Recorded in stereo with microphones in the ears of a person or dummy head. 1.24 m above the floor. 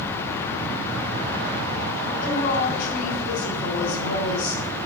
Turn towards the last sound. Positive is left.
turn(degrees=45)  # may be behind; listen again after turning